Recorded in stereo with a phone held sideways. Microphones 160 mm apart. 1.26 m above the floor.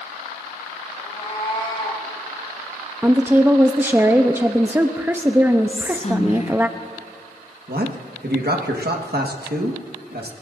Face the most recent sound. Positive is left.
turn(degrees=-80)